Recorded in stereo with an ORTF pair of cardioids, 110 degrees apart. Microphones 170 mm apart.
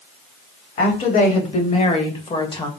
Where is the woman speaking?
55° left, 3 m; by 2.7 s 30° left, 1.6 m.